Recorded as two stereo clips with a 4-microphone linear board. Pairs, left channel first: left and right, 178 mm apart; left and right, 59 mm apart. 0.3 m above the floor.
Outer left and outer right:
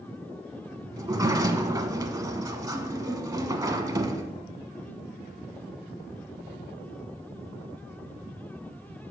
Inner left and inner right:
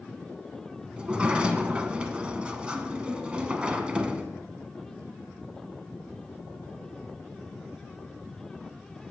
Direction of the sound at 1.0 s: 20° right (ahead or behind).